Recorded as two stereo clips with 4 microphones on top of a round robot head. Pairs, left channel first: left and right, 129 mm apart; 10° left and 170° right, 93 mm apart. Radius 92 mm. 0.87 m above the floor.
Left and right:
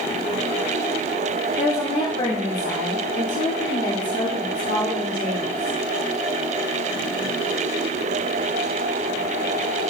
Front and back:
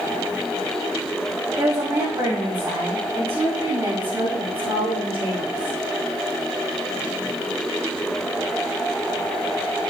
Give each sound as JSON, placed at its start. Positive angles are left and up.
{"t": 1.6, "sound": "a woman speaking", "azimuth_deg": 130, "distance_m": 2.5}